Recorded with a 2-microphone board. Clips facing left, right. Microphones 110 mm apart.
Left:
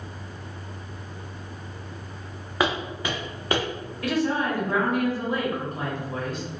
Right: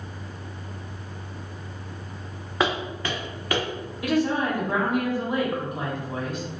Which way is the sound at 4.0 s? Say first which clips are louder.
Right 1 dB; 15° right (ahead or behind).